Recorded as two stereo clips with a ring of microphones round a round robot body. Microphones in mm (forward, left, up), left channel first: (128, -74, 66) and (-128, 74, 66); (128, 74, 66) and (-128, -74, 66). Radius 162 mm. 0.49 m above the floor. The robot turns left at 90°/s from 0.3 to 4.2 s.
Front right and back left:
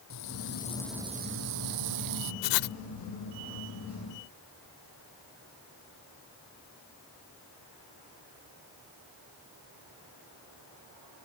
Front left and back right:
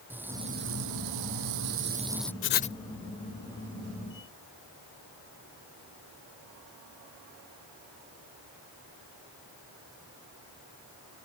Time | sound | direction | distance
0.1 | frying | 65° right | ?
2.4 | writing | 15° right | ?